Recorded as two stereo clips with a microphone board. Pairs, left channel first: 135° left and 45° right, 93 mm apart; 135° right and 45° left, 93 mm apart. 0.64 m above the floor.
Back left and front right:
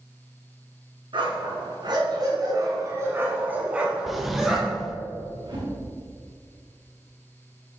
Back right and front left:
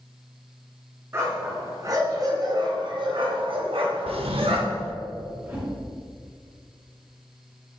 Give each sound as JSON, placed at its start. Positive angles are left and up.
{"t": 1.1, "sound": "a dog barking", "azimuth_deg": -20, "distance_m": 3.5}
{"t": 4.1, "sound": "a drawer", "azimuth_deg": 45, "distance_m": 1.0}
{"t": 5.5, "sound": "a whoosh", "azimuth_deg": -25, "distance_m": 4.0}